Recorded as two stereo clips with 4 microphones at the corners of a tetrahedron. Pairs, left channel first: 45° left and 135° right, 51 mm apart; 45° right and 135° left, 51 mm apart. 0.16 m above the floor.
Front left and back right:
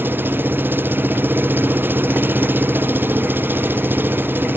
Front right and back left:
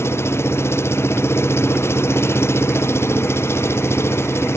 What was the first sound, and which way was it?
An engine running, 85° right.